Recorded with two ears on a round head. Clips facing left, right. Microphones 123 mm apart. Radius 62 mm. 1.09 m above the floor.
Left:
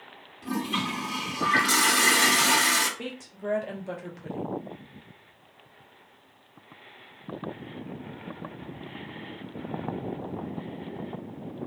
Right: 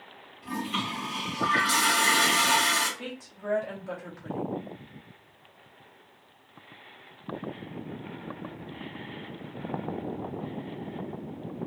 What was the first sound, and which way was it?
A toilet flushing, 60° left (ahead or behind).